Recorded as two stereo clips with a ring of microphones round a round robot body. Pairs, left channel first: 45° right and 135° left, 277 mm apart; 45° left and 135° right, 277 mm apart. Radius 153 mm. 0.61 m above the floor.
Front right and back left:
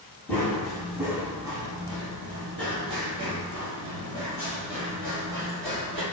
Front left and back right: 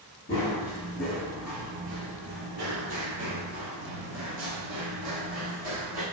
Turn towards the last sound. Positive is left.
turn(degrees=-150)